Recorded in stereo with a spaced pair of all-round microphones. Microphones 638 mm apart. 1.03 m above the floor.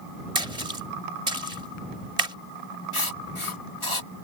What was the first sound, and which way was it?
A splash, 70° right (ahead or behind).